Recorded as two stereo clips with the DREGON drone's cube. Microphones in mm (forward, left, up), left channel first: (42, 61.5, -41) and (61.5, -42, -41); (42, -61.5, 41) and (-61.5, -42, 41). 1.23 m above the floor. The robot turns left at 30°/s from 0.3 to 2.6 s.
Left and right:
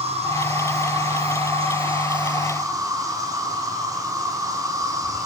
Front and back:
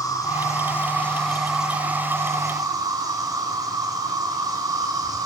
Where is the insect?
65° right, 5.5 m; by 5.3 s 135° right, 5.5 m.